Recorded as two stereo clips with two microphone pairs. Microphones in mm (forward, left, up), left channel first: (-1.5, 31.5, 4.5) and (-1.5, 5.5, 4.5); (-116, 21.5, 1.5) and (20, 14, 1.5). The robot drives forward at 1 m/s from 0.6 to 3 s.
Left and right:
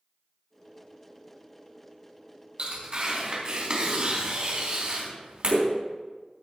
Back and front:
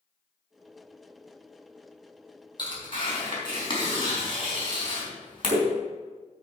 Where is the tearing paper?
130° right, 3.5 m; by 5.7 s 135° right, 4 m.